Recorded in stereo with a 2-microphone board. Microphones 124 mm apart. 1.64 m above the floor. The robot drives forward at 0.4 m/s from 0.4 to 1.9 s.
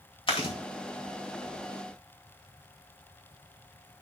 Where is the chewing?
45° left (ahead or behind), 2.5 m.